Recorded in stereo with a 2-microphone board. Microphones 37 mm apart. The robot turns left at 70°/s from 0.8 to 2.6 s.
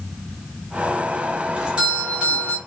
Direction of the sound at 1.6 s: 70° right.